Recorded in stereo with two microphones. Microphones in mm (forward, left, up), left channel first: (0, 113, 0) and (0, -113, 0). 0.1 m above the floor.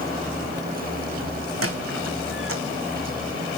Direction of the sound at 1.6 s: 80° right.